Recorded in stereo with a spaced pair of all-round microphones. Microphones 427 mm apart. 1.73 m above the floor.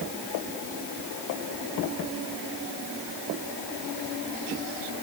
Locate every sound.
Only background noise.